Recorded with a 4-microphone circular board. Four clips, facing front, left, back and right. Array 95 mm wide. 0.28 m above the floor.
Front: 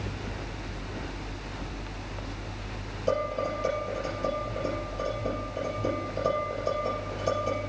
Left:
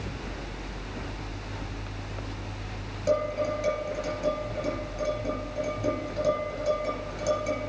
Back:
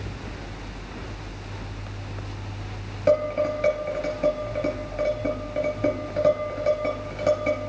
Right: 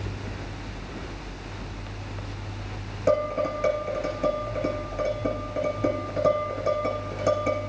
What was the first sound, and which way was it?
Dishes clattering, 150° right.